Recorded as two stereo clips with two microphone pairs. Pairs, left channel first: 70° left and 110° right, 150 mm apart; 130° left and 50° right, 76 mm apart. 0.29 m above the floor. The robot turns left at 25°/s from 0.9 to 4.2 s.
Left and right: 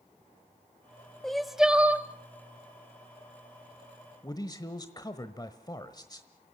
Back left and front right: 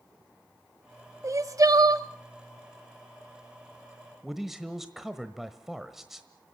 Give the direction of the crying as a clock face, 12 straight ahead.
1 o'clock.